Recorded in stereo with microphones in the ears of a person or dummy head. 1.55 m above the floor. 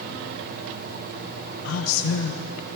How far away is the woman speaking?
About 1.2 m.